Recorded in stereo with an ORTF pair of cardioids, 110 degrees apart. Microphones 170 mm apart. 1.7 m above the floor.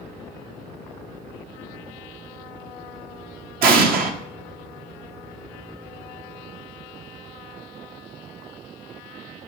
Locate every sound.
3.6 s an explosion: 60° right, 0.9 m